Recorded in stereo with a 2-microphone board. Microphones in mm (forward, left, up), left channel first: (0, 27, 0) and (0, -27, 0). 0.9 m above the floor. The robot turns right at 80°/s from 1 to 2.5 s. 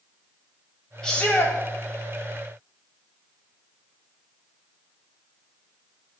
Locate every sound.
1.0 s a shout: 10° left, 3 m; by 1.6 s 55° left, 3 m